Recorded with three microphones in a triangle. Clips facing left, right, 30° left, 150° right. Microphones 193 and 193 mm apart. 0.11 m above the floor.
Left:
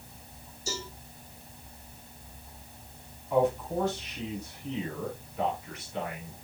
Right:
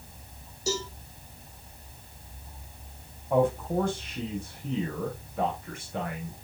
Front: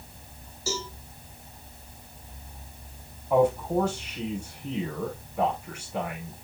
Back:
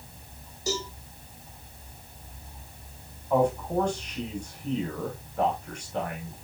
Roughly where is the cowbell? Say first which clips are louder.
Right 7 dB, back 2 dB; right.